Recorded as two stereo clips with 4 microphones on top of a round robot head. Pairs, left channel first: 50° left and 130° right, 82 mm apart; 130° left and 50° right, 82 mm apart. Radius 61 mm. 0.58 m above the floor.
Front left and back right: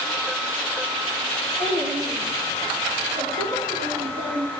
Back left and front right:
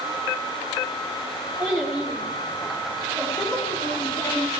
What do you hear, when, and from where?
1.6 s a child speaking: 135° right, 5 m; by 4.5 s 145° right, 6 m